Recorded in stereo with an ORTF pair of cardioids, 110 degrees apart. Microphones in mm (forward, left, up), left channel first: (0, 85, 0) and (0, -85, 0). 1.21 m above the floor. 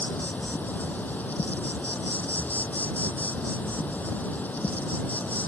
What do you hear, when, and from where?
0.0 s an insect: 10° left